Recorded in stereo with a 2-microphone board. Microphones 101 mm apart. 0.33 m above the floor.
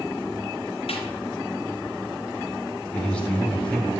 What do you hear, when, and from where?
0.9 s a snare drum: 75° left (ahead or behind), 3 m
2.9 s a man speaking: 15° left (ahead or behind), 2 m